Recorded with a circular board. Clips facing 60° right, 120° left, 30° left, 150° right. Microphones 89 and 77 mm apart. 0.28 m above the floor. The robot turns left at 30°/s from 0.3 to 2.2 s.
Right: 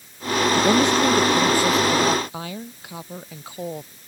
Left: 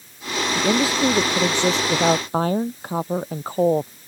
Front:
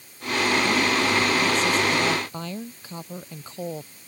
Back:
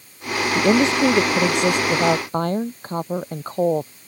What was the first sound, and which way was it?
A woman speaking, 145° right.